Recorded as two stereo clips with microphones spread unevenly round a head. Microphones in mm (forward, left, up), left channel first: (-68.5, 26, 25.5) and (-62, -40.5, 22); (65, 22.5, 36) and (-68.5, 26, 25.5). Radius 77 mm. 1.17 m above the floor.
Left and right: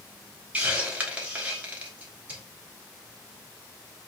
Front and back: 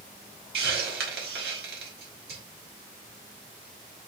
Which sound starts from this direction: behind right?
A hiss, at 0.5 s.